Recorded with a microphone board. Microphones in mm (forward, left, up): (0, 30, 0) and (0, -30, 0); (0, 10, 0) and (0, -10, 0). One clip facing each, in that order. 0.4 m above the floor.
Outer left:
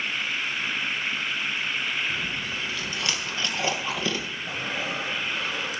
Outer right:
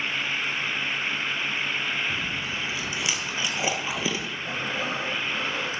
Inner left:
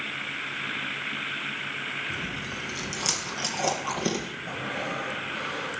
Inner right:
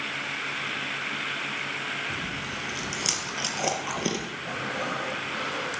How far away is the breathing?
About 10 m.